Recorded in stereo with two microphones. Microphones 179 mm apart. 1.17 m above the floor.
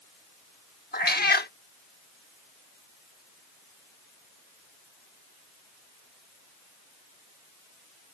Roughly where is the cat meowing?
Left.